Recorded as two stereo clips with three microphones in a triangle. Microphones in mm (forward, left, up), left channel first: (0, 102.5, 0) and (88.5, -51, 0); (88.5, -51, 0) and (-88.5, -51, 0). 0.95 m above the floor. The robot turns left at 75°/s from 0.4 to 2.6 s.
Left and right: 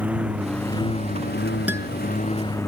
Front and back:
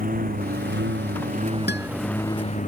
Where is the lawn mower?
140° right; by 2.7 s 45° left.